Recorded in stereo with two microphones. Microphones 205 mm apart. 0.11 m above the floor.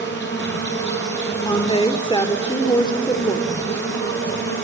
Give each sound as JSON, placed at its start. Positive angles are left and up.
{"t": 0.0, "sound": "an insect", "side_deg": 60, "distance_m": 4.0}
{"t": 1.4, "sound": "a woman speaking", "side_deg": 20, "distance_m": 1.9}